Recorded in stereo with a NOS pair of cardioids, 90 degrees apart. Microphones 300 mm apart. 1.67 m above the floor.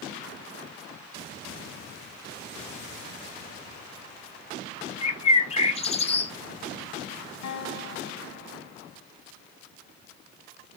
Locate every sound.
5.0 s a bird: 20° left, 0.6 m
7.4 s a guitar: 60° left, 1.7 m